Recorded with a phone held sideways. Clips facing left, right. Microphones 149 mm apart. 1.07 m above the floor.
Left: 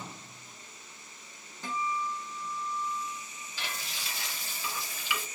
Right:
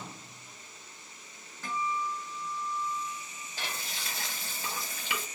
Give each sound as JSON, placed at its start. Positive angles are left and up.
{"t": 1.6, "sound": "a guitar", "side_deg": 20, "distance_m": 0.8}
{"t": 3.6, "sound": "frying", "side_deg": -50, "distance_m": 0.8}